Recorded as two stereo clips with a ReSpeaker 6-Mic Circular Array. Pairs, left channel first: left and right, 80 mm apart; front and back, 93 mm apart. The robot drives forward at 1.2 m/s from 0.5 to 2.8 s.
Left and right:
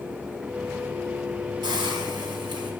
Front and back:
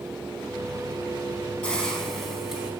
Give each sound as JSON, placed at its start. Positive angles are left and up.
{"t": 1.6, "sound": "a hiss", "azimuth_deg": -80, "distance_m": 3.5}